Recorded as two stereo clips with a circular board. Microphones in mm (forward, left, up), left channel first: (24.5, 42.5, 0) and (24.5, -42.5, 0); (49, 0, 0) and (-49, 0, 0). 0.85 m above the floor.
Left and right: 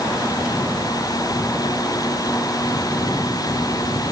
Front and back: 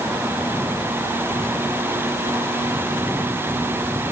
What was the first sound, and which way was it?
Only background noise.